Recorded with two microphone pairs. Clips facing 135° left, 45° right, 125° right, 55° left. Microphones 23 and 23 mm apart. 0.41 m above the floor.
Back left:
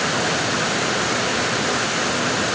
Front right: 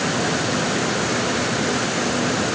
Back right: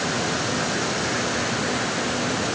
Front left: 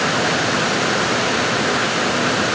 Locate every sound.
Only background noise.